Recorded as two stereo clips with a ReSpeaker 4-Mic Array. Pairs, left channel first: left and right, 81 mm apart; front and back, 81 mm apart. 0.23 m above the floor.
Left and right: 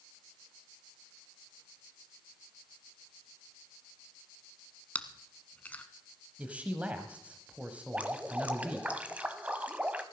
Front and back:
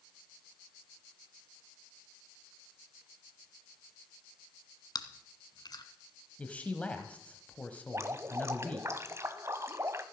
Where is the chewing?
20° left, 1.2 m.